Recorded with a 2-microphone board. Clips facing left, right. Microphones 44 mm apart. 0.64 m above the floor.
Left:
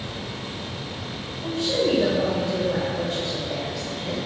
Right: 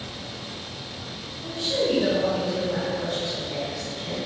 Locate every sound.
1.4 s a woman speaking: 60° left (ahead or behind), 2.5 m